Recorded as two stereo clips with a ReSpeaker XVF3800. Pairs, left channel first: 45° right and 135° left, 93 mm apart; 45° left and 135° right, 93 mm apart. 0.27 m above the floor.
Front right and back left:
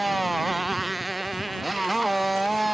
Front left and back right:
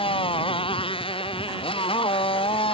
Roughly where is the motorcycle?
Ahead left.